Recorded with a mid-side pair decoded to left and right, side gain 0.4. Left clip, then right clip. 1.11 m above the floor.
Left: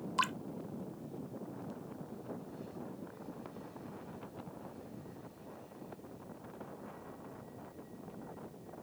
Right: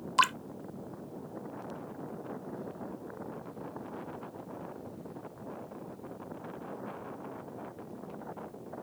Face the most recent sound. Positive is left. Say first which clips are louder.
# right 8 dB
turn(degrees=-55)